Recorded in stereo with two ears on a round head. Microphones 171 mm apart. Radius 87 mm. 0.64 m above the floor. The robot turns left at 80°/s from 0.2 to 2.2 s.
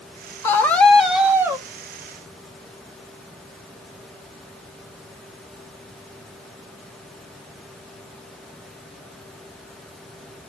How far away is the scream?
About 0.6 m.